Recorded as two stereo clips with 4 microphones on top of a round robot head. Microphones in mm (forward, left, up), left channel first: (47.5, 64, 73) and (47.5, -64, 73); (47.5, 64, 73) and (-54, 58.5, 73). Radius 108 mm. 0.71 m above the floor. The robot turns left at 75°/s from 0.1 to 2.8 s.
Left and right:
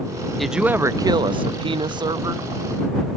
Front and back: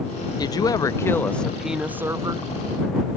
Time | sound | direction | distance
0.4 | a woman speaking | straight ahead | ?